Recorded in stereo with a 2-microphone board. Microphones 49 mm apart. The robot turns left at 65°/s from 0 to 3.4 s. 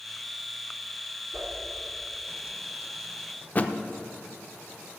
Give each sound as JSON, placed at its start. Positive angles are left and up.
{"t": 1.3, "sound": "a whoosh", "side_deg": -60, "distance_m": 2.5}
{"t": 3.5, "sound": "a thud", "side_deg": 35, "distance_m": 0.6}